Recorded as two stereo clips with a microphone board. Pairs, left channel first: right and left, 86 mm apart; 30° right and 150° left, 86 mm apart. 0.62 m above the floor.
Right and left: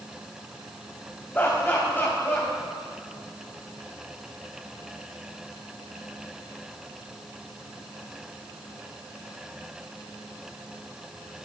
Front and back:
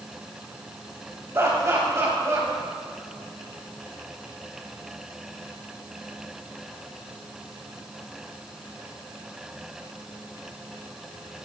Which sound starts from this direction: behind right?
Laughter, at 1.3 s.